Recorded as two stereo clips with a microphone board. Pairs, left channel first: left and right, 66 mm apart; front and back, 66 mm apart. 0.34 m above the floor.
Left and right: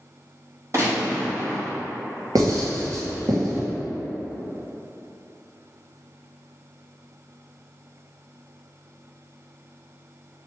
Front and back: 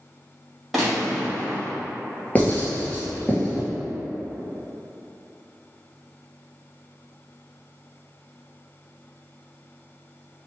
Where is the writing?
70° right, 1.5 m.